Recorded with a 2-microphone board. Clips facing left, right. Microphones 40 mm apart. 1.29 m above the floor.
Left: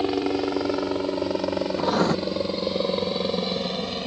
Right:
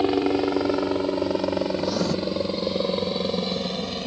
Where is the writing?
40° left (ahead or behind).